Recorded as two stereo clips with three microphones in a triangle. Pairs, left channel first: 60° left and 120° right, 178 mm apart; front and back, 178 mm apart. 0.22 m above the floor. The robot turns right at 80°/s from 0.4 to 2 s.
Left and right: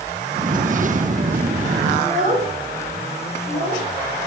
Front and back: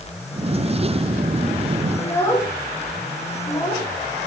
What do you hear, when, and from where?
2.0 s a child speaking: 80° right, 6 m